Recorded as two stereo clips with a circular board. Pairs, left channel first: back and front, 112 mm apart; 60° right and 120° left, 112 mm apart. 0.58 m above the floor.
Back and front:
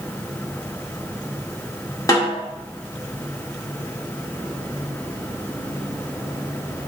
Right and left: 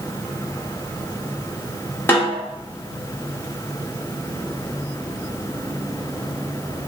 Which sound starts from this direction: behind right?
A snare drum, at 2.1 s.